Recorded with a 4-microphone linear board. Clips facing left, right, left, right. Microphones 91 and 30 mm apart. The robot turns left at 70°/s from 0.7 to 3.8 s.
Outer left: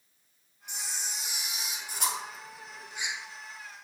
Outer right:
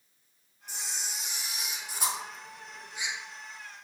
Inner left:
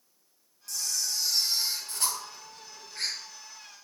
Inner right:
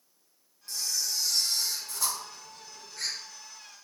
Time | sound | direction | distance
0.7 | a camera shutter | 145° right | 3 m